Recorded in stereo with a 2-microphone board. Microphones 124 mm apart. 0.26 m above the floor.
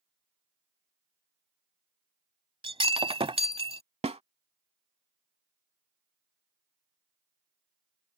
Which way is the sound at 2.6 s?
50° right (ahead or behind).